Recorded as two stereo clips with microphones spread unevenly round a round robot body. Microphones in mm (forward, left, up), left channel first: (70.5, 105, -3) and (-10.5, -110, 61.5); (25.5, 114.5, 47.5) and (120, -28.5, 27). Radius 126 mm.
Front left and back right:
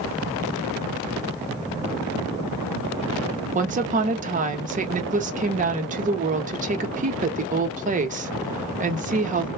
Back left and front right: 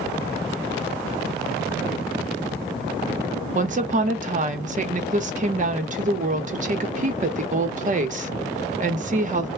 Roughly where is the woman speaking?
Ahead right.